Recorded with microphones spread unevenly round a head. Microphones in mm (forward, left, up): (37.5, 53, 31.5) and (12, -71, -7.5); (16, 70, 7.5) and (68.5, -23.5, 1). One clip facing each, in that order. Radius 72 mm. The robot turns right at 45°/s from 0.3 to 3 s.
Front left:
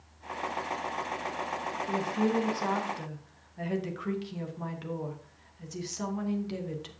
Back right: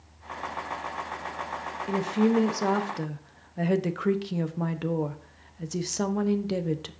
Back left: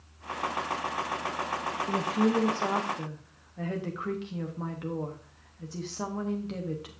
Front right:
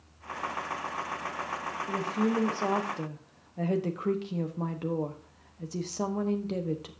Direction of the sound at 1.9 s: 170° right.